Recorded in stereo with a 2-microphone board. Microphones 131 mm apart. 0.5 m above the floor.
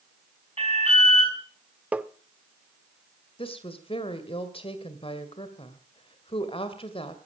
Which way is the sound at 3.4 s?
45° left (ahead or behind).